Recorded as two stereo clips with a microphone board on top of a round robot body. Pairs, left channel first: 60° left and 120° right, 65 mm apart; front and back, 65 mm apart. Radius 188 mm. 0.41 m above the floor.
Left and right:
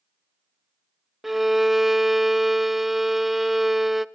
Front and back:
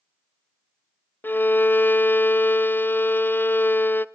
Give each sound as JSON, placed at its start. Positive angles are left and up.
{"t": 1.2, "sound": "a violin", "azimuth_deg": -35, "distance_m": 0.6}